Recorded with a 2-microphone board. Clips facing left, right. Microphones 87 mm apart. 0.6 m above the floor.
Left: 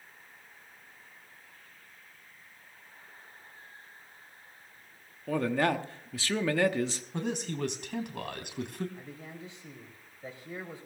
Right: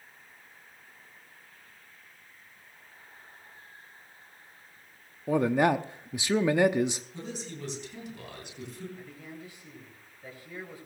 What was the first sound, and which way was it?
A man speaking, 15° right (ahead or behind).